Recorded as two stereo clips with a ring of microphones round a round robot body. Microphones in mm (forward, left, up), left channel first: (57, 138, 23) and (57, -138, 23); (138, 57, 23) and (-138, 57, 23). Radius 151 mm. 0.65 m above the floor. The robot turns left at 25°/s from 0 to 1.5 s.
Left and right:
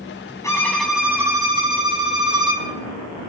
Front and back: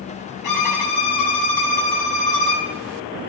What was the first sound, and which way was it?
A violin, 10° left.